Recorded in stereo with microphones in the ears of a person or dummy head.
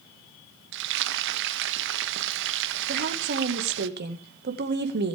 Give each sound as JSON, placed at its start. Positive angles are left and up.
{"t": 0.7, "sound": "frying", "side_deg": -70, "distance_m": 1.2}
{"t": 2.9, "sound": "a woman speaking", "side_deg": -55, "distance_m": 2.0}